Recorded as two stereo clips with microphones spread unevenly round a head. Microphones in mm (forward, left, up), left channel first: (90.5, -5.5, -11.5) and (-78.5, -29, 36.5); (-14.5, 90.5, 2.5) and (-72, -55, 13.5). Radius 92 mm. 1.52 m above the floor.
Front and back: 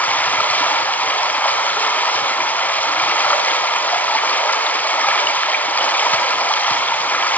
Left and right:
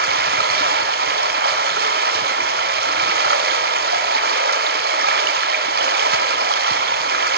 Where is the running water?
80° right, 3.5 m.